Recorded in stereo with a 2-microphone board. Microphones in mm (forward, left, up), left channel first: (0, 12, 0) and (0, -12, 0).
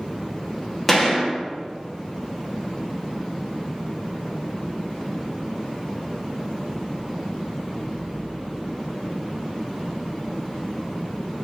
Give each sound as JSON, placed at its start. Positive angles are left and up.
{"t": 0.9, "sound": "a gunshot", "side_deg": 10, "distance_m": 1.2}